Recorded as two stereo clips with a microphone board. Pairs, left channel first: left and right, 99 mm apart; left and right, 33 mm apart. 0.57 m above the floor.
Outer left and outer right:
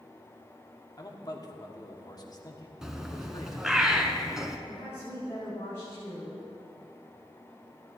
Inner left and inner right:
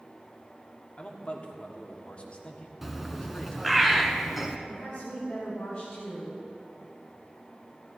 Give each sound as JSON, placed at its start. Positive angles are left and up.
{"t": 1.0, "sound": "a man speaking", "side_deg": 40, "distance_m": 1.4}
{"t": 2.8, "sound": "a bird", "side_deg": -5, "distance_m": 1.1}
{"t": 4.7, "sound": "a woman speaking", "side_deg": 25, "distance_m": 4.5}